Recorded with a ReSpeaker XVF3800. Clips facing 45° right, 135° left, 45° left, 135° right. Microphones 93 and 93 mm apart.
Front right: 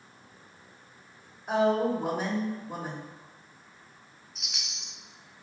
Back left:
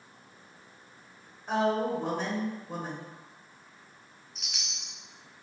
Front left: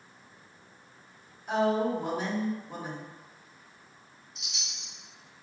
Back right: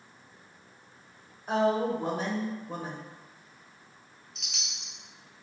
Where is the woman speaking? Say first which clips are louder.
Front right 3 dB, even; 120° right, 1.0 m.